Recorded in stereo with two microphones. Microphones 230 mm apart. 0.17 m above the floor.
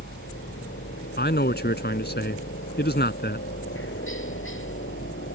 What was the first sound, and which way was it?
A helicopter, 60° left (ahead or behind).